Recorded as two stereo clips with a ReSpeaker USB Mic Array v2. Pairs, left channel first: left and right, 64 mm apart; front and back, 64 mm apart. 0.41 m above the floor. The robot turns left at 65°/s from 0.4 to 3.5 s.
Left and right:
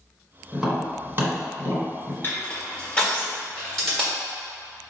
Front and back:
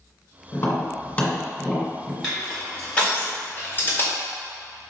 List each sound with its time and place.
0.5 s tapping: 10° right, 1.5 m; by 2.1 s 115° right, 1.5 m
2.2 s crushing: 100° left, 1.4 m; by 4.1 s 20° left, 1.4 m